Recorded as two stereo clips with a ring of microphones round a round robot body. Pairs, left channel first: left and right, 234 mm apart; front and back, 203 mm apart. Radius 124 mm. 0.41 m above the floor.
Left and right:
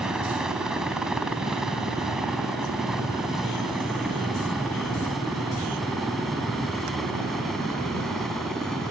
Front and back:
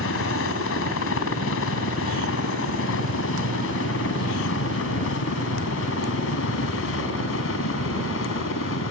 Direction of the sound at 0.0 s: 5° right.